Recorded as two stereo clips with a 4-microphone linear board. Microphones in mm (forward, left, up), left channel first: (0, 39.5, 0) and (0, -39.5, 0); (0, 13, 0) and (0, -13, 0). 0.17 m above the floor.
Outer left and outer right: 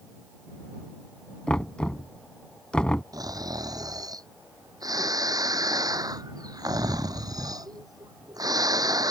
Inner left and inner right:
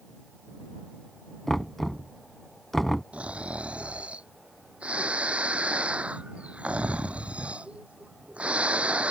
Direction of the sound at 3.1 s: 55° right (ahead or behind).